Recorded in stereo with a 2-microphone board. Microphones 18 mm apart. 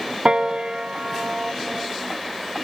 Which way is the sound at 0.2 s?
65° right (ahead or behind).